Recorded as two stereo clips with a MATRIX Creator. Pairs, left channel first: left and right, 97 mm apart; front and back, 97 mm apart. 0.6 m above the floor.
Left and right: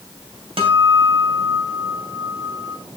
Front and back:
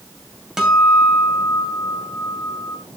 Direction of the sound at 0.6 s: 95° right.